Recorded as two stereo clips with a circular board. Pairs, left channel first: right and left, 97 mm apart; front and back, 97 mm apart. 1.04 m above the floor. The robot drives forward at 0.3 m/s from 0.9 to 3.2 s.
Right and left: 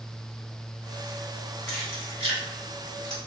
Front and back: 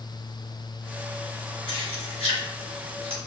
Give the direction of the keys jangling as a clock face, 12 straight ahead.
6 o'clock.